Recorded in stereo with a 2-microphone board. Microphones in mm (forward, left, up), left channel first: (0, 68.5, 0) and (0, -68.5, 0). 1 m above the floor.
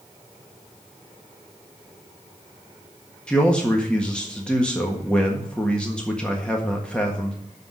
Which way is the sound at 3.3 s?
5° left (ahead or behind).